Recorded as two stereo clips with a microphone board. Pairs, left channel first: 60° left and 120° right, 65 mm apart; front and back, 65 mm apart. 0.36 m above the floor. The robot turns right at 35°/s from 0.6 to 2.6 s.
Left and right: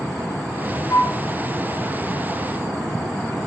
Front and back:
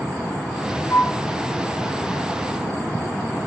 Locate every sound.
0.9 s a flute: 40° left, 3 m; by 1.2 s 50° left, 3 m